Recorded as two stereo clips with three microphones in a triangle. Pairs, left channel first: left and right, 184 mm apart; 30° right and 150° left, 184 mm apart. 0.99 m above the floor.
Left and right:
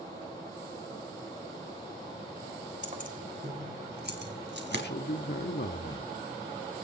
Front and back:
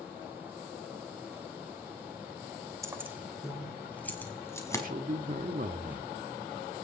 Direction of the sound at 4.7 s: 110° left.